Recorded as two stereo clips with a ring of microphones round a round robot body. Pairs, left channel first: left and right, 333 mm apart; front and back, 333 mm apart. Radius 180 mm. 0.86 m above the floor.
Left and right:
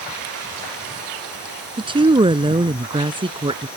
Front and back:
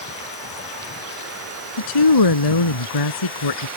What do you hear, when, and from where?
1.8 s a woman speaking: 15° right